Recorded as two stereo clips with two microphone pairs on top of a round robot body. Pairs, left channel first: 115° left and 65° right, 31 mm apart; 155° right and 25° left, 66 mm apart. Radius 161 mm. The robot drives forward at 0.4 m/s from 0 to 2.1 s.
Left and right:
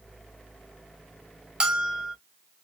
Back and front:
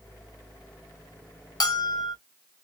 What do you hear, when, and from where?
1.6 s a bell: 130° right, 0.7 m; by 2.1 s 140° right, 0.9 m